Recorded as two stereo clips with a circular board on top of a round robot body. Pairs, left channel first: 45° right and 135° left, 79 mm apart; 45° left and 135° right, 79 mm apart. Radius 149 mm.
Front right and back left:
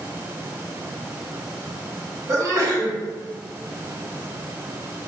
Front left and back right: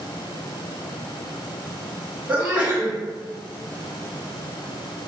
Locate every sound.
2.3 s a sneeze: 165° left, 1.7 m